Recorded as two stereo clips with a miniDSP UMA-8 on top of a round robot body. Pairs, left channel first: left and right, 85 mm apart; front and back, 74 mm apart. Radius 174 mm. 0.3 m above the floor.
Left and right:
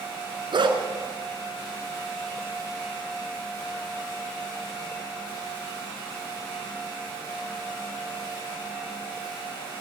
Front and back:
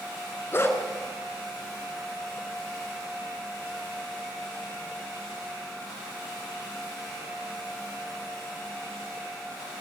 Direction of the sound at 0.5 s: 55° right.